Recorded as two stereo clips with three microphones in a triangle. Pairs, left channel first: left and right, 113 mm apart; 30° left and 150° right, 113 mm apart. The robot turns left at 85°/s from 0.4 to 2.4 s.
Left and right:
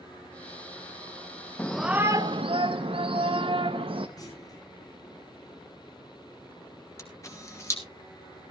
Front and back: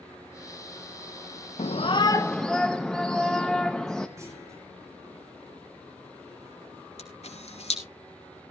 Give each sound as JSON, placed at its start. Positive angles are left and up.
{"t": 1.6, "sound": "a shout", "azimuth_deg": 15, "distance_m": 0.8}
{"t": 4.2, "sound": "a clunk", "azimuth_deg": 145, "distance_m": 5.0}
{"t": 7.0, "sound": "a camera shutter", "azimuth_deg": 30, "distance_m": 3.0}